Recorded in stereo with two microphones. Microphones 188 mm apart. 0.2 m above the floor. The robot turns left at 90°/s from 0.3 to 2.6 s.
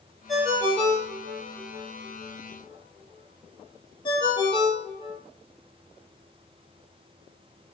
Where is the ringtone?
Centre (ahead or behind), 3 m; by 5.2 s 25° left (ahead or behind), 3 m.